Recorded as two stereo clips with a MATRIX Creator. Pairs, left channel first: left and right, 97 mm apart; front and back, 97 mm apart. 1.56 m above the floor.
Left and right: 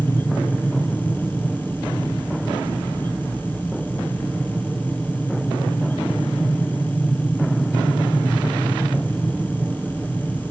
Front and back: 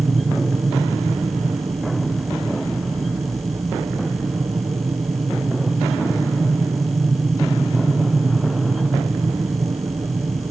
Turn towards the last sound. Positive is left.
turn(degrees=-160)